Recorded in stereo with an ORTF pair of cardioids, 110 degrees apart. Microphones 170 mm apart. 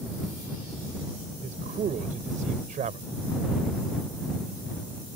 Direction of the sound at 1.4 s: 50° right.